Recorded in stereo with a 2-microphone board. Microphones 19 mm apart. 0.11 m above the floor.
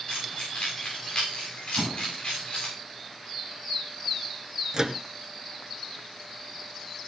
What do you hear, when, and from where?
0.1 s keys jangling: 65° left (ahead or behind), 8.5 m
1.8 s an explosion: 60° right (ahead or behind), 2.5 m
4.7 s a microwave: 20° right (ahead or behind), 1.3 m